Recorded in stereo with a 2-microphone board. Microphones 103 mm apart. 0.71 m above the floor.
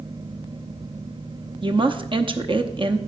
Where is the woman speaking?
50° right (ahead or behind), 0.8 m.